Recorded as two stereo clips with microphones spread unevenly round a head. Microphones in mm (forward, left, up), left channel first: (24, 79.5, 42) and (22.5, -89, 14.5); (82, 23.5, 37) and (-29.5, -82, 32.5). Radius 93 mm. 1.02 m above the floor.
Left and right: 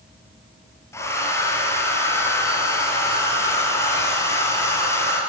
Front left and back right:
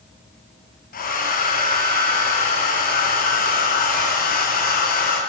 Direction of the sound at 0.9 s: 15° left.